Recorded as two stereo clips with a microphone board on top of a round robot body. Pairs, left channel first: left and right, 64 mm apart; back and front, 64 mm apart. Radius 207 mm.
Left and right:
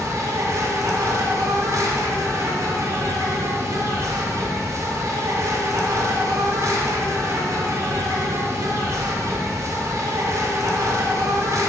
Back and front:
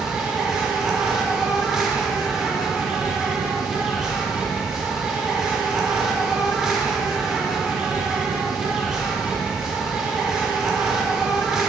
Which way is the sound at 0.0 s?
80° right.